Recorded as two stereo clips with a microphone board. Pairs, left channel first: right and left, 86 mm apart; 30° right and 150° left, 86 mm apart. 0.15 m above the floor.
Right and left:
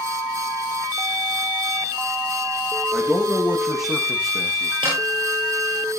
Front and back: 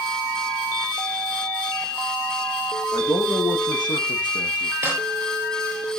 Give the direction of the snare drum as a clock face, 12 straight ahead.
9 o'clock.